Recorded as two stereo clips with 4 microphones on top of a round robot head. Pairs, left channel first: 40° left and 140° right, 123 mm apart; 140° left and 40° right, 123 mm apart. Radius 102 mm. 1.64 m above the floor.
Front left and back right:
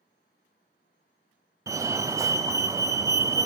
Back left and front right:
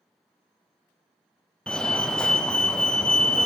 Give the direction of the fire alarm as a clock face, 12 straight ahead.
5 o'clock.